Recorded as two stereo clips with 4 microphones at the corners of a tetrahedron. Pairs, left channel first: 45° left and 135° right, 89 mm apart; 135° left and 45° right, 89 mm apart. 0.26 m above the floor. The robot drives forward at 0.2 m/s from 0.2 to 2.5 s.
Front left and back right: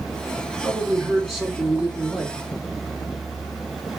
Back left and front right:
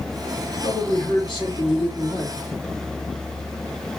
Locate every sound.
0.6 s a man speaking: 135° left, 2.5 m; by 2.4 s 140° left, 3 m